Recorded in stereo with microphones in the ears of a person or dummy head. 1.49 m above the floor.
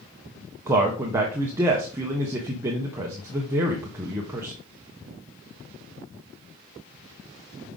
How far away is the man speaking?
About 0.7 m.